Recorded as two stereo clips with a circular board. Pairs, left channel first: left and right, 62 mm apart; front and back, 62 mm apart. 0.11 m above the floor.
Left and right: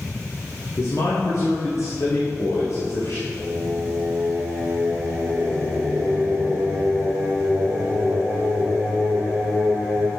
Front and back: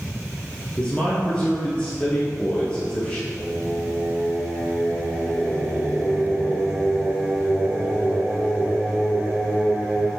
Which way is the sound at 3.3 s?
125° right.